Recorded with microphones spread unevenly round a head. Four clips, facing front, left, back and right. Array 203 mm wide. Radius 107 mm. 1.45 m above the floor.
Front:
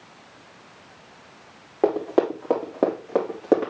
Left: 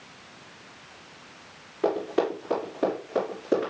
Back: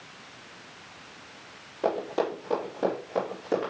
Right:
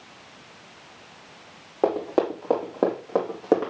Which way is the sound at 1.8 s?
35° right.